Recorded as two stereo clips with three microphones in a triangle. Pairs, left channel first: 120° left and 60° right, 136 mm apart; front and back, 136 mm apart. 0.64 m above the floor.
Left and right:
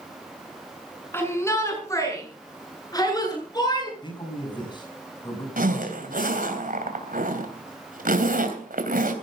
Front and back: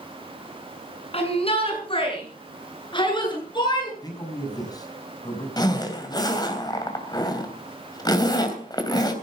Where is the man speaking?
65° left, 6 m.